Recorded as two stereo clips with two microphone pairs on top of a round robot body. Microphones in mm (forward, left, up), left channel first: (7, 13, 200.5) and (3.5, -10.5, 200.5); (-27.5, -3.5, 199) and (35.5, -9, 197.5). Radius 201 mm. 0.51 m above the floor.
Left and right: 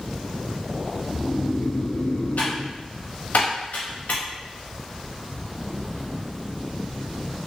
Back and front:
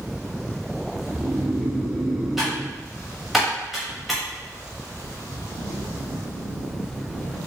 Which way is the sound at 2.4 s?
80° left.